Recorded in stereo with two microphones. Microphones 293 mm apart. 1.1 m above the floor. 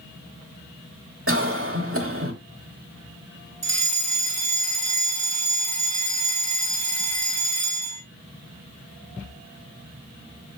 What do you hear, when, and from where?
1.3 s a cough: 50° right (ahead or behind), 2.5 m
3.6 s a fire alarm: 60° right (ahead or behind), 2 m